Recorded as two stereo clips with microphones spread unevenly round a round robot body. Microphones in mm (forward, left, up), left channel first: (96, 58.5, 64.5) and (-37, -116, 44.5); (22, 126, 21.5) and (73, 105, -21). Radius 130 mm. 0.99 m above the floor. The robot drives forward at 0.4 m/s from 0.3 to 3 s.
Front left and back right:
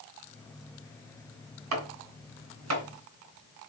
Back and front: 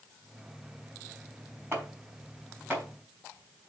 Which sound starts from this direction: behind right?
Chopping, at 1.7 s.